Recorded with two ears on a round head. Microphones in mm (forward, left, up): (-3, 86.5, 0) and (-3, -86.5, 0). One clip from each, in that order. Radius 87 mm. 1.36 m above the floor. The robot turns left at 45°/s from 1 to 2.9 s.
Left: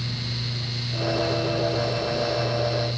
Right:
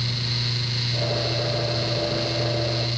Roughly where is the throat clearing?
No throat clearing in this recording.